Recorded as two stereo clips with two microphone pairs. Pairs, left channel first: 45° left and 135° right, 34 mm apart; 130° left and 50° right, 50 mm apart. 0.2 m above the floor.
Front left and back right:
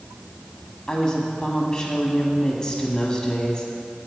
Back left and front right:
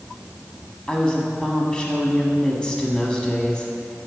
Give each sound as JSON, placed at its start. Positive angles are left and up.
{"t": 0.9, "sound": "a woman speaking", "azimuth_deg": 80, "distance_m": 1.0}